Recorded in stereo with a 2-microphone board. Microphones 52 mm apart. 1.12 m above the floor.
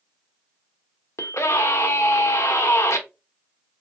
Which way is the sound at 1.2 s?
65° left (ahead or behind).